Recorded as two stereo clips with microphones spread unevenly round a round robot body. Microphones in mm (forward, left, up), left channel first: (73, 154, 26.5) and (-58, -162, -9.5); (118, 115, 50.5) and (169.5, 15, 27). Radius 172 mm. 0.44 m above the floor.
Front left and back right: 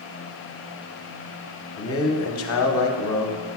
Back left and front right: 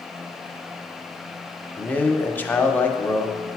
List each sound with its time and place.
1.8 s a man speaking: 35° left, 0.9 m